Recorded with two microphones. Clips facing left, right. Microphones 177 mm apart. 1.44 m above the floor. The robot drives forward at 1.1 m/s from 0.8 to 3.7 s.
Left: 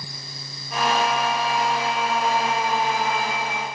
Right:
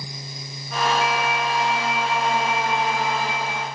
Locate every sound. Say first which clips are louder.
1.0 s a flute: even; 85° right, 6.5 m; by 3.6 s 65° right (ahead or behind), 7 m